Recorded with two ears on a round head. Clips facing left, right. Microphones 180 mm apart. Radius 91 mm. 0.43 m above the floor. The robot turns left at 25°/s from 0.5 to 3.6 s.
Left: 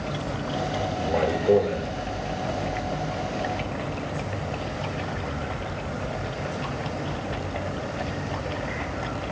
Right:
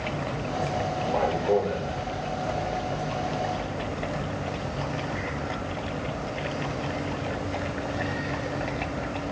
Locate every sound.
1.0 s a man speaking: 40° left (ahead or behind), 1.4 m